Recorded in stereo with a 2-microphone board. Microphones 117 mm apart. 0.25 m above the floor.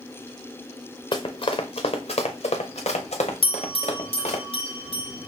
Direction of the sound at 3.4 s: 60° left (ahead or behind).